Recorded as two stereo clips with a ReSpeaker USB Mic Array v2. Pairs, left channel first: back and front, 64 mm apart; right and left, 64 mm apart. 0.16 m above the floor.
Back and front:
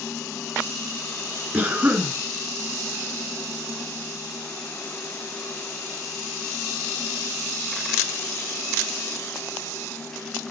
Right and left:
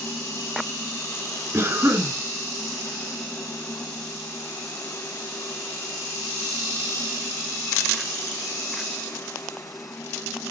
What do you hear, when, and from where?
1.5 s a cough: 60° left, 2.5 m